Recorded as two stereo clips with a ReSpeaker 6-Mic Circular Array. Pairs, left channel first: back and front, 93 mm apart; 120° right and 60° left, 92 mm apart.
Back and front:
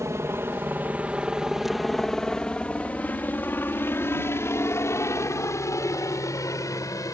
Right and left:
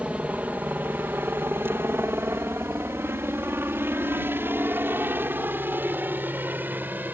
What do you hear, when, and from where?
0.0 s a helicopter: straight ahead; by 7.1 s 130° left